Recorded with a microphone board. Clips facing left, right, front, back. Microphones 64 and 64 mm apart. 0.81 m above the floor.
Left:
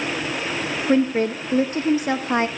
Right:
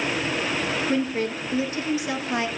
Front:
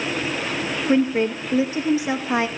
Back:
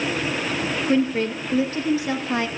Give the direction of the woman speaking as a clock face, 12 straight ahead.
10 o'clock.